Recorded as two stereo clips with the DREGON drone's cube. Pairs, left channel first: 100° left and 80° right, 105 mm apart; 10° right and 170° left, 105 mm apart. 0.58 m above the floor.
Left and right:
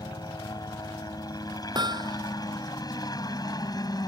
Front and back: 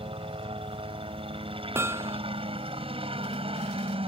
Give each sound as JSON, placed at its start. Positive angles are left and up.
{"t": 0.0, "sound": "a helicopter", "azimuth_deg": 150}
{"t": 1.8, "sound": "hammering", "azimuth_deg": -125}